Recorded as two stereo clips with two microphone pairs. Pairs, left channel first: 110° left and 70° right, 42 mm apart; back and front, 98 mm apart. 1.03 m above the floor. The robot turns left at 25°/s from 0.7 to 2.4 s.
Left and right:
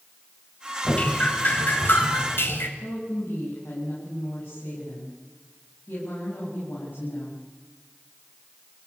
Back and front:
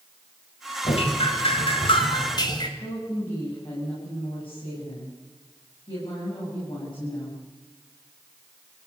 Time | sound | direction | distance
0.8 | dripping | 175° left | 3 m
2.8 | a woman speaking | 150° left | 8.5 m